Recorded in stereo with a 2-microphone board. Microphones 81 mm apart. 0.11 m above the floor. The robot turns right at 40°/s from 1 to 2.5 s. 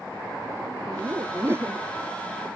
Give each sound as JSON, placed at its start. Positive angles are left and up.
{"t": 0.9, "sound": "laughter", "azimuth_deg": -60}